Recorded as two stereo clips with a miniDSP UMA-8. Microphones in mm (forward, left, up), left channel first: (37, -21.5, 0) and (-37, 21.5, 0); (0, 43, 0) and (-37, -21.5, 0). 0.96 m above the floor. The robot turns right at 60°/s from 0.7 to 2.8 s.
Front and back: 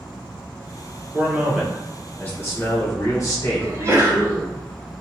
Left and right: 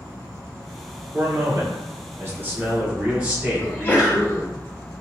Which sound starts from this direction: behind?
An insect, at 0.0 s.